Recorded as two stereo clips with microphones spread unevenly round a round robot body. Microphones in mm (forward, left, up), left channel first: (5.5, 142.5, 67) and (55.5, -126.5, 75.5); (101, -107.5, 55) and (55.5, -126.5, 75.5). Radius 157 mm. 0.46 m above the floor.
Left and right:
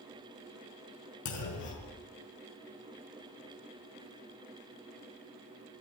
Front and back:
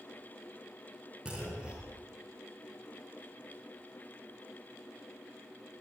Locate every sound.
1.2 s a clunk: 120° left, 5.5 m